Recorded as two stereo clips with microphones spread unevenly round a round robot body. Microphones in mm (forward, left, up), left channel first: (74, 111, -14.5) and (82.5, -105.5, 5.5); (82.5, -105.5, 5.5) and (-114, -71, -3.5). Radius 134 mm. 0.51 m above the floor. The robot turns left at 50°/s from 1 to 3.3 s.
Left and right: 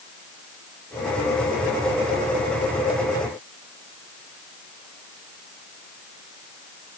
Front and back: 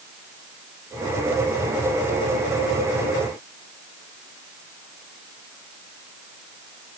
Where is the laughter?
I don't hear laughter.